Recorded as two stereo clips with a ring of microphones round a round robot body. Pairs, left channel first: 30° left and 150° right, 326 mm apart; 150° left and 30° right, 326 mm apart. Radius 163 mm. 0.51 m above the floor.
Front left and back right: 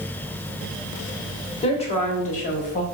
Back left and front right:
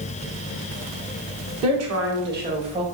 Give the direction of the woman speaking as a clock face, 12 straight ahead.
1 o'clock.